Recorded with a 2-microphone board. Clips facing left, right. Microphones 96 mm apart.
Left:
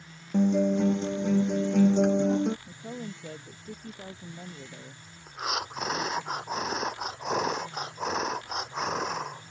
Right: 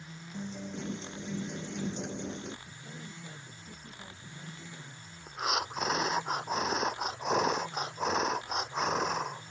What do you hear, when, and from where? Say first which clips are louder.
0.3 s a guitar: left 17 dB; 85° left
2.7 s a woman speaking: left 8 dB; 60° left (ahead or behind)
5.3 s breathing: even; 5° right (ahead or behind)